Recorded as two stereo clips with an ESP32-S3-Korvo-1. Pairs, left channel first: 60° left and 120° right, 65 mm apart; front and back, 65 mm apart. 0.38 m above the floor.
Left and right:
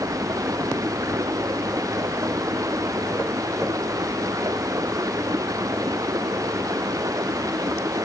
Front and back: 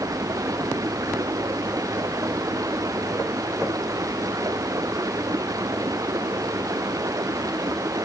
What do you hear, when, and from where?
0.0 s running water: 150° right